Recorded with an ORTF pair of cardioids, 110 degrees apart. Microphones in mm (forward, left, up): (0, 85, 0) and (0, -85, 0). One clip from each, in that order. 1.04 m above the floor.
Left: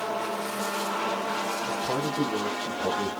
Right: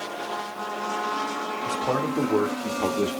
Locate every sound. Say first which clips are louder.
1.6 s a man speaking: right 3 dB; 65° right, 2.5 m